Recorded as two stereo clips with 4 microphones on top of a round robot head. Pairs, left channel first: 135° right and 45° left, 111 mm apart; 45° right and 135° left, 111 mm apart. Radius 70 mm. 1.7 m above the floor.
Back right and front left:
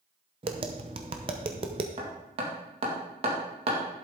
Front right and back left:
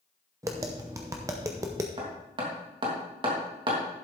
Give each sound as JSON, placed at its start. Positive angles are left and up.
{"t": 0.4, "sound": "tapping", "azimuth_deg": 75, "distance_m": 0.8}
{"t": 2.0, "sound": "hammering", "azimuth_deg": 85, "distance_m": 2.5}